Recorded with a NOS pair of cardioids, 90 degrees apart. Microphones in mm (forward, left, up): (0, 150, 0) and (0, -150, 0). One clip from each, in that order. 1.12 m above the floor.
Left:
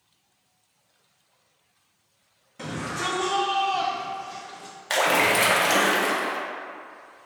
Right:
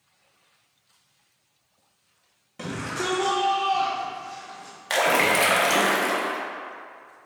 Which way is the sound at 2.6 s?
30° right.